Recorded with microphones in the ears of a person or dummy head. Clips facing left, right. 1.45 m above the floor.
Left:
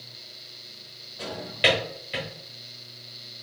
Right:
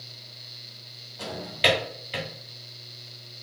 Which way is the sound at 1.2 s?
15° left (ahead or behind).